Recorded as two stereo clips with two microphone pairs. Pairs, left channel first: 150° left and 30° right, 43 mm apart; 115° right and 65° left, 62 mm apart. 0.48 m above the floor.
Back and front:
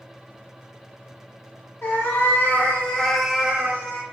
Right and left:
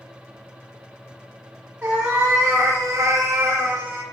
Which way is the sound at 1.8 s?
125° left.